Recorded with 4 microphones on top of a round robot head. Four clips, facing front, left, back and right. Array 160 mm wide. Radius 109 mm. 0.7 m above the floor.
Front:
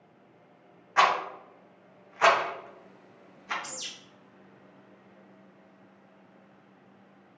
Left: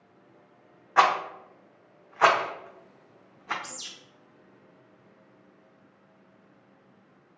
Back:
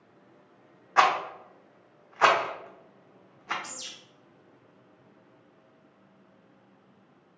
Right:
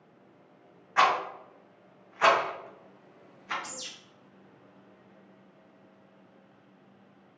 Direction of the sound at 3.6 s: 30° left.